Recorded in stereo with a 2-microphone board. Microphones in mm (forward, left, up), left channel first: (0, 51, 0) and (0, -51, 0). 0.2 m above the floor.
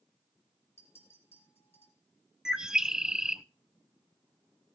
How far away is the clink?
About 5 m.